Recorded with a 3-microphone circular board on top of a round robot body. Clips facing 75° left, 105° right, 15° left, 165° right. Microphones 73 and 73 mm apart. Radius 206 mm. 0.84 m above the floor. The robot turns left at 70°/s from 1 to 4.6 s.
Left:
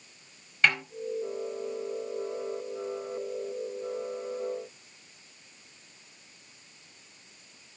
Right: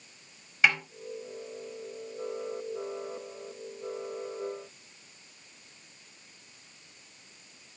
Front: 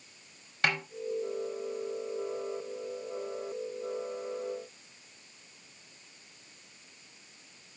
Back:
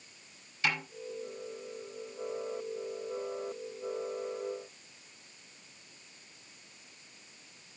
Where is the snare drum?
20° right, 4.5 m.